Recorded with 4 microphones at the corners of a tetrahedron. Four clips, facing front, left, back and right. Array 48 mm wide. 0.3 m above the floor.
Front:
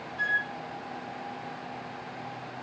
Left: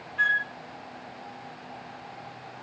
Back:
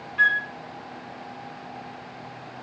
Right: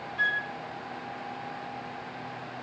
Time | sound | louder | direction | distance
0.2 | a flute | left 4 dB, back 7 dB | 165° left | 3 m